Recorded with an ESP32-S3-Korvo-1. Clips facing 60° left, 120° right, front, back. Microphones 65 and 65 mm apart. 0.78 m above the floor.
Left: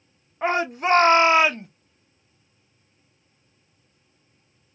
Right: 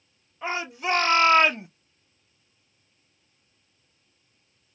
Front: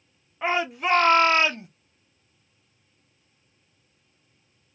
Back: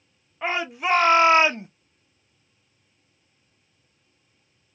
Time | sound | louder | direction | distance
0.4 | a shout | left 6 dB, front 1 dB | 90° left | 1.0 m